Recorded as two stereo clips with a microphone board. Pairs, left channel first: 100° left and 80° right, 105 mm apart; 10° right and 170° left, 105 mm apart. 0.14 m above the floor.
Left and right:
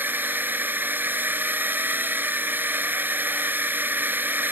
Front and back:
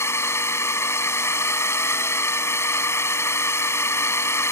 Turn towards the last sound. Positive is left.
turn(degrees=-35)